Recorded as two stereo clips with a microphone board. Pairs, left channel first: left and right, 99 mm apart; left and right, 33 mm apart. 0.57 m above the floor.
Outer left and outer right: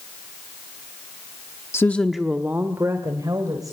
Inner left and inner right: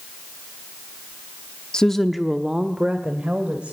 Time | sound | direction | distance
1.7 | a woman speaking | 25° left (ahead or behind) | 0.9 m